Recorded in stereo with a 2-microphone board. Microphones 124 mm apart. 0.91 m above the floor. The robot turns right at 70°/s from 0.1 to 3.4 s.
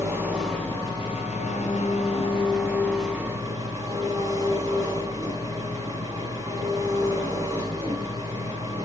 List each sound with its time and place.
0.0 s an engine running: 25° right, 6.5 m; by 8.9 s 155° right, 6.5 m